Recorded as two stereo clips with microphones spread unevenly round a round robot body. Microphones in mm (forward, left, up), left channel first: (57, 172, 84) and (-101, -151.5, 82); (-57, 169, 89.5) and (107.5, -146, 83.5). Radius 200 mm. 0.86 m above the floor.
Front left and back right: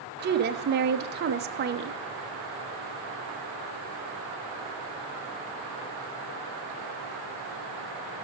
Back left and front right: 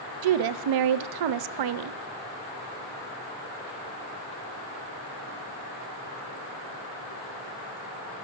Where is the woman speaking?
55° right, 0.5 m.